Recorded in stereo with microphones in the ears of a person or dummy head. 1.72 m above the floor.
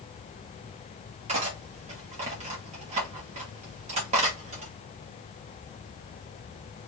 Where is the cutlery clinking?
35° right (ahead or behind), 1.6 m.